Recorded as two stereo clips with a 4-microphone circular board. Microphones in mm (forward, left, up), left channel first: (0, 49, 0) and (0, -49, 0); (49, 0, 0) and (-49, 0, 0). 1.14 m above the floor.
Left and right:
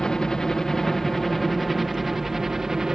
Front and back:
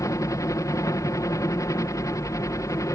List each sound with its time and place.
0.0 s a helicopter: 10° left; by 3.0 s 10° right